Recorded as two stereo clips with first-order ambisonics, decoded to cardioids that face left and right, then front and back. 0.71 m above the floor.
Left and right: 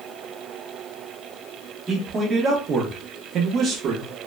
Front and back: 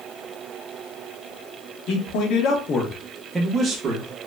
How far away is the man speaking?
About 0.8 m.